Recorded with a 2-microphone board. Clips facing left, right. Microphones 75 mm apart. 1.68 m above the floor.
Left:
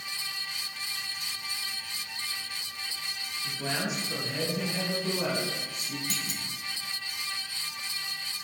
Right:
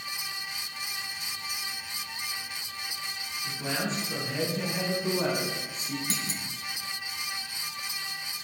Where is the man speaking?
20° left (ahead or behind), 3.5 m; by 6.0 s 45° right (ahead or behind), 2.5 m.